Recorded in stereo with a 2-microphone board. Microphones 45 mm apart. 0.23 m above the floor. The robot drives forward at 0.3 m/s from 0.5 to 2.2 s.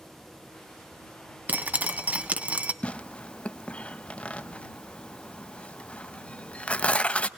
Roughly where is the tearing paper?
Left.